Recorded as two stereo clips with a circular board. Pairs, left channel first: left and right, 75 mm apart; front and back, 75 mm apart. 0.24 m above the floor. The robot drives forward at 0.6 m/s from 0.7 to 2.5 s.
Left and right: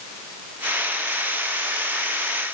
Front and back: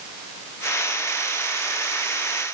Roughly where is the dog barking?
I don't hear a dog barking.